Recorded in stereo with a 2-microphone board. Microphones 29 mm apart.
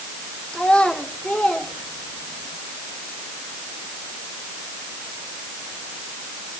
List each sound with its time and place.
0.5 s a child speaking: 35° left (ahead or behind), 3 m; by 2.5 s 50° left (ahead or behind), 4 m